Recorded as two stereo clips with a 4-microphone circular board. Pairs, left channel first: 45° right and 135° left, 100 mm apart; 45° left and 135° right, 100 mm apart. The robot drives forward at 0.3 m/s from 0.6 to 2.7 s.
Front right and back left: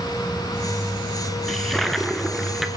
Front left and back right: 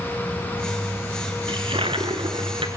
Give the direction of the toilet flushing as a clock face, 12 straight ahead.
4 o'clock.